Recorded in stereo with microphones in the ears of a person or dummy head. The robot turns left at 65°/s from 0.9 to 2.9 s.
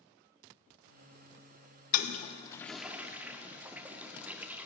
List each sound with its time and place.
1.9 s a toilet flushing: 50° left (ahead or behind), 0.5 m; by 4.7 s 10° right (ahead or behind), 0.5 m